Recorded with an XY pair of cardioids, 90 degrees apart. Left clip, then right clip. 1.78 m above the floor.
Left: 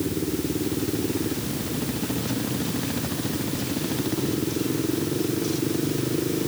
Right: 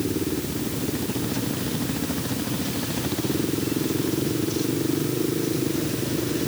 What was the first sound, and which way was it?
Only background noise.